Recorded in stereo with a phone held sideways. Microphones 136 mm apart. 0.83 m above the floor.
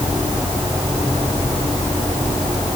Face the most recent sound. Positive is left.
No sound to turn to.